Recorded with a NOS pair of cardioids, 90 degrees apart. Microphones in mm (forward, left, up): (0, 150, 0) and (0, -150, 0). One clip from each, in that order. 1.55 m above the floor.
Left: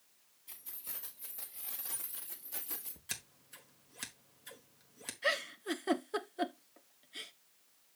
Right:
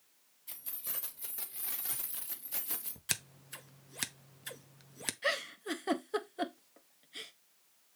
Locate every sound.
0.5 s keys jangling: 55° right, 2.5 m; by 3.0 s 35° right, 1.5 m
3.1 s scissors: 50° right, 0.9 m
5.2 s a giggle: 5° right, 0.8 m